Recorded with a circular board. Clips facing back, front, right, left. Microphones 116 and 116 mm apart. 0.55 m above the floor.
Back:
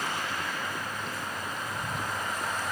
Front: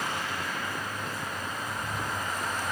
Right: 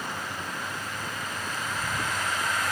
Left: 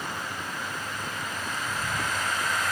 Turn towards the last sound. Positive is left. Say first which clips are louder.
# even, even
turn(degrees=-165)